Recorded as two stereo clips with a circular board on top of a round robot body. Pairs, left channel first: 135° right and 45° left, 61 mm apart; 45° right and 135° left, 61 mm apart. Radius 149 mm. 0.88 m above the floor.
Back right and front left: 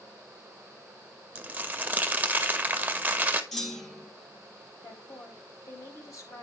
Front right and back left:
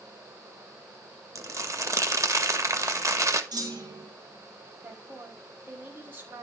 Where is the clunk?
140° left, 4 m.